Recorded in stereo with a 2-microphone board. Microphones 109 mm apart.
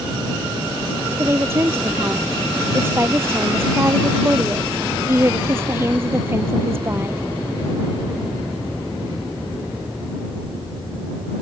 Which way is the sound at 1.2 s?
25° right (ahead or behind).